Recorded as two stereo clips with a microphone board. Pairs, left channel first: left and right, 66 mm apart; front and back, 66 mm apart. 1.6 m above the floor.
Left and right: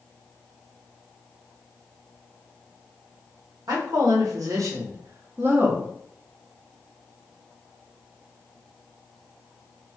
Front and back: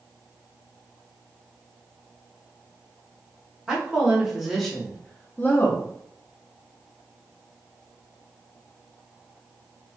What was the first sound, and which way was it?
A woman speaking, 105° right.